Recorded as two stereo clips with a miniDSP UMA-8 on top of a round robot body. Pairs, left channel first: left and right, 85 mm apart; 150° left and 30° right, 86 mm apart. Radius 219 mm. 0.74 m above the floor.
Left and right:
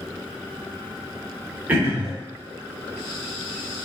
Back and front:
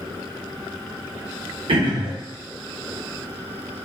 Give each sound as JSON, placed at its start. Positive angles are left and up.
{"t": 1.7, "sound": "throat clearing", "azimuth_deg": -15, "distance_m": 1.1}